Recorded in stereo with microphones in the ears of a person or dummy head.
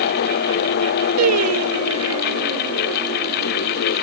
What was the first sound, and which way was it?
Singing, 75° right (ahead or behind).